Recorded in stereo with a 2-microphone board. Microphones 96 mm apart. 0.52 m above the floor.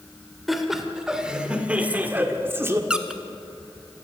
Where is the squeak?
10° right (ahead or behind), 1.1 m.